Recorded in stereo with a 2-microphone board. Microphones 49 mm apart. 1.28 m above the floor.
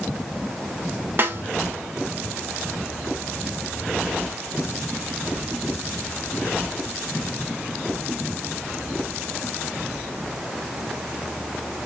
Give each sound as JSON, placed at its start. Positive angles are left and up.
{"t": 1.2, "sound": "a snare drum", "side_deg": -45, "distance_m": 0.9}